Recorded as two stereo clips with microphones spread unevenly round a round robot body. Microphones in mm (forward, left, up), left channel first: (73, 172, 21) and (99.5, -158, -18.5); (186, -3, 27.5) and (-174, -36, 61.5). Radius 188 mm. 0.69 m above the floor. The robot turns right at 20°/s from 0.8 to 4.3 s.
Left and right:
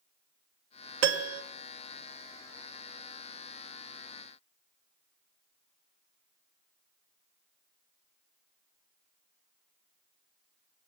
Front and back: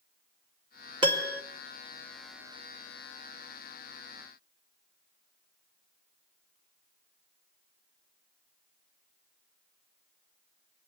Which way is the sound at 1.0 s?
100° right.